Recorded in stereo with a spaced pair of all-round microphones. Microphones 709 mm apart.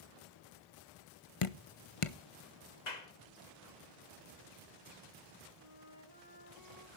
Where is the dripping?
50° left (ahead or behind), 0.8 m.